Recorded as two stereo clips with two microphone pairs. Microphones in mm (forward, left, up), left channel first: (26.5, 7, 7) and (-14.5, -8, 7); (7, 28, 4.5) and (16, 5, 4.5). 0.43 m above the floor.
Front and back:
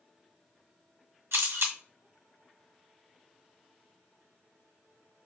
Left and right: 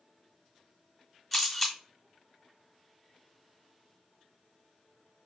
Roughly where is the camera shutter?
Behind.